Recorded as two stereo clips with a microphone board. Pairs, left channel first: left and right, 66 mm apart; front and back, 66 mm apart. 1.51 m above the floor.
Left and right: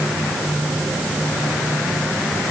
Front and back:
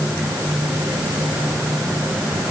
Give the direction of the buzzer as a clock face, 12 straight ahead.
No buzzer in this recording.